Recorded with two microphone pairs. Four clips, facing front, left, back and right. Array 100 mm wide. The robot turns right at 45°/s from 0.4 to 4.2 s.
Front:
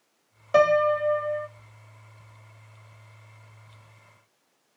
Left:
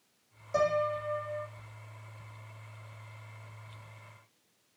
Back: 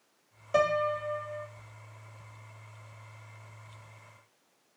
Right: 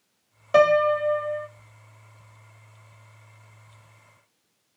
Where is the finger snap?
No finger snap in this recording.